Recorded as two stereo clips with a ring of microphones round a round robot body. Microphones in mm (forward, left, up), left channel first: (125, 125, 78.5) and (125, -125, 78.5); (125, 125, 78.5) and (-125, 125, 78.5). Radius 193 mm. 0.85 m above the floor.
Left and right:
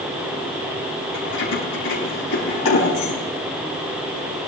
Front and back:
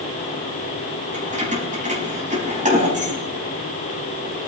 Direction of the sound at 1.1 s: 120° left.